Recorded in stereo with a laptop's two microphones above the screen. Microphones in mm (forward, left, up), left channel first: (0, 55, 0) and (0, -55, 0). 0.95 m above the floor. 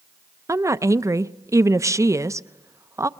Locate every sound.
0.5 s a woman speaking: 25° right (ahead or behind), 0.5 m